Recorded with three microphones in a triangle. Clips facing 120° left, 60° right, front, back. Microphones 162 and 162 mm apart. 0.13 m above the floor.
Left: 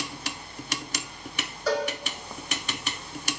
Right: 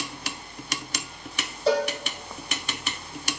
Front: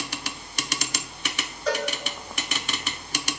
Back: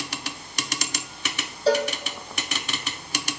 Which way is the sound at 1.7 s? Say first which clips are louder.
Right 4 dB, back 6 dB; 125° right.